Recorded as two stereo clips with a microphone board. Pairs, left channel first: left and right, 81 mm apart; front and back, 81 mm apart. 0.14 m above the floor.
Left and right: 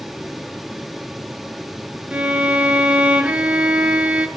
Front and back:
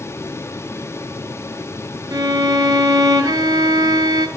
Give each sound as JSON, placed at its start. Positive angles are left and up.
{"t": 2.1, "sound": "a violin", "azimuth_deg": -160, "distance_m": 1.5}